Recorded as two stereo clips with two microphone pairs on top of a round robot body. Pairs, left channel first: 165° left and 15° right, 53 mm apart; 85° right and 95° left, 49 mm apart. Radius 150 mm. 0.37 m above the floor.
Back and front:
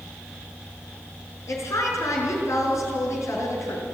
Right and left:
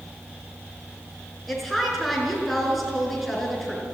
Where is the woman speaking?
175° right, 5.5 m.